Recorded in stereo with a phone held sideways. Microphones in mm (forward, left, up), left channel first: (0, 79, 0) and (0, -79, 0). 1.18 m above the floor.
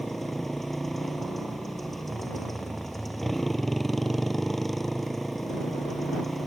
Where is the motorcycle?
Centre (ahead or behind).